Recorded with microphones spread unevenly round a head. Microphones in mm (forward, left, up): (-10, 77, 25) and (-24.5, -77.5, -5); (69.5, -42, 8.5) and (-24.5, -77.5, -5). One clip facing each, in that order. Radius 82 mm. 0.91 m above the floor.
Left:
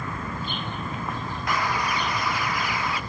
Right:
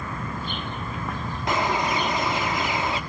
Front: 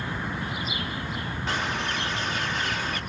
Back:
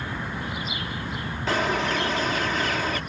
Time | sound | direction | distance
1.5 | a bird | 165° right | 0.8 m